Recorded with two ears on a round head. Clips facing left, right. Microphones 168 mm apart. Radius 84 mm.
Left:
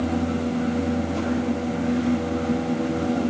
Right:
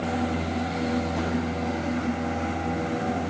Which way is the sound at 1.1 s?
75° left (ahead or behind).